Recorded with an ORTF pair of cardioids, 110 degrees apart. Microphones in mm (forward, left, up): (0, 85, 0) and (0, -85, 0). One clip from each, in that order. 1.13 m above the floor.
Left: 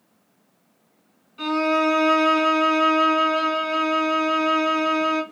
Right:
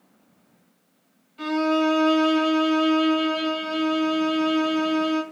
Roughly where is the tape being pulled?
No tape being pulled in this recording.